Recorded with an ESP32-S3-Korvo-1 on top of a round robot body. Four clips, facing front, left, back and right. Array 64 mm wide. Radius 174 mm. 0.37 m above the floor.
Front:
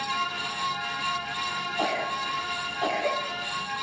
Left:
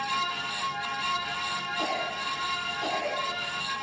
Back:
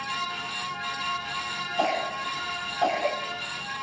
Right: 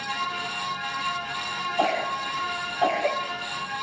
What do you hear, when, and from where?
1.8 s a cough: 125° right, 3 m